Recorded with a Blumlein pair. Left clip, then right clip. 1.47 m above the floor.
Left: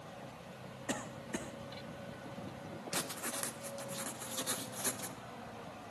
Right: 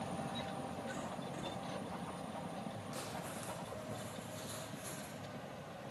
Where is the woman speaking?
No woman speaking in this recording.